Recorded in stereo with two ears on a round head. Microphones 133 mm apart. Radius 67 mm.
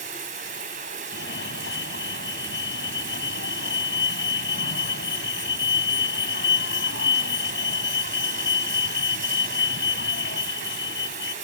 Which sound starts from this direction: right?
Running water, at 0.0 s.